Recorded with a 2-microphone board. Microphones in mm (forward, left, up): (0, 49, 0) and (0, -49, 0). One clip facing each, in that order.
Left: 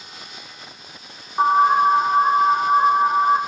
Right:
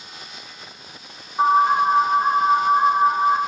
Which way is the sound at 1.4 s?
65° left (ahead or behind).